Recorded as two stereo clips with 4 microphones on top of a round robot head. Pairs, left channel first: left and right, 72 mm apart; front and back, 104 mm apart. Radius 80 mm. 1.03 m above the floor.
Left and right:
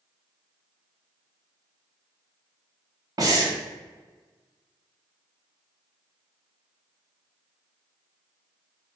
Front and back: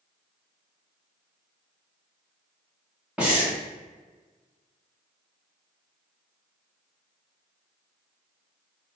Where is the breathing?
105° right, 1.1 m.